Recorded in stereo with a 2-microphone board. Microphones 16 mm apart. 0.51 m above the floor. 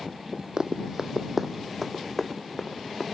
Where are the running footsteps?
55° right (ahead or behind); by 3.0 s 10° left (ahead or behind).